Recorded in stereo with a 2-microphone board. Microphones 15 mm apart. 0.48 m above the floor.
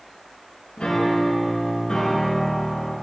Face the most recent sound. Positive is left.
turn(degrees=60)  # may be behind; listen again after turning